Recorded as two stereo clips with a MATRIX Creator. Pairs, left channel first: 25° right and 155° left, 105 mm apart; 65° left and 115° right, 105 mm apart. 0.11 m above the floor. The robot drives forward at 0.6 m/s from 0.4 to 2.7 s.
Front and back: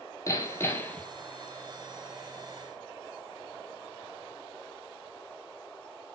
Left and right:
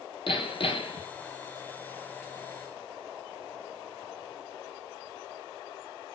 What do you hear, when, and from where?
0.3 s hammering: 35° left, 1.1 m; by 1.1 s 55° left, 0.8 m